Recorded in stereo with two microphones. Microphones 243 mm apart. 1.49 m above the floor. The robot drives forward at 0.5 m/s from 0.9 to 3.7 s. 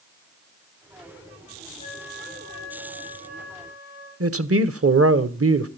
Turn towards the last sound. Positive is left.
turn(degrees=-70)  # may be behind; listen again after turning